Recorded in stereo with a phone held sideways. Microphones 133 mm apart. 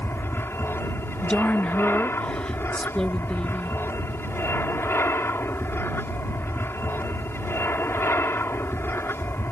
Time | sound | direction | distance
0.0 | an aircraft | 15° left (ahead or behind) | ?
1.2 | a woman speaking | 5° left (ahead or behind) | ?